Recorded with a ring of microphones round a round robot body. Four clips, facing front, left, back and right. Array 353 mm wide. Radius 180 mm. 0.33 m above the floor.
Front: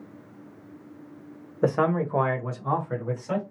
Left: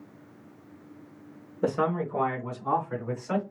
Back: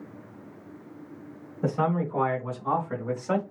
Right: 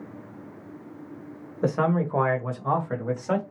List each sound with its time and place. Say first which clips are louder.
1.6 s a man speaking: right 3 dB, front 3 dB; 10° right, 1.4 m; by 3.4 s 105° right, 2.0 m